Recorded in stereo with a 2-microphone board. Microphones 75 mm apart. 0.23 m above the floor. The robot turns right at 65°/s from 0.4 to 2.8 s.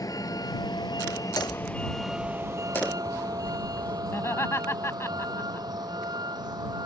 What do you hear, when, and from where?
0.0 s a vehicle: 55° left (ahead or behind); by 6.9 s 70° right (ahead or behind)
1.4 s hammering: 65° left; by 4.0 s 160° left
4.1 s laughter: 40° left (ahead or behind)